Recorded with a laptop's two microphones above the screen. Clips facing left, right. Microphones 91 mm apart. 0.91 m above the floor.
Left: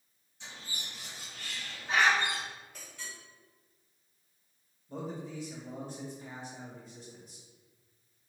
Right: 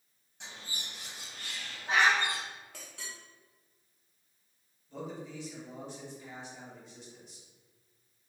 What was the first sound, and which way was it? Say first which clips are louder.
A bird: even; 70° right (ahead or behind).